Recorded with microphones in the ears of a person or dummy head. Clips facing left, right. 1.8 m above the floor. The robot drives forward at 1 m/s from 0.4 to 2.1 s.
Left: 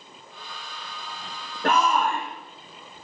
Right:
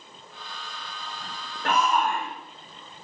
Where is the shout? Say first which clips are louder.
Left 2 dB; 55° left (ahead or behind), 2.5 m; by 2.3 s 45° left (ahead or behind), 2.5 m.